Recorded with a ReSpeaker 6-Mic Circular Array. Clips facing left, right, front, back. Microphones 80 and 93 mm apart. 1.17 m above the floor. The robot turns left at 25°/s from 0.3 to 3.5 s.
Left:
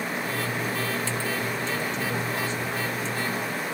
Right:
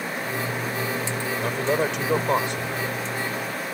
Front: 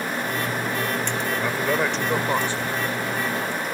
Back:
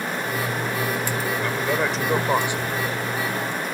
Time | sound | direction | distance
1.4 | a man speaking | 80° right | ?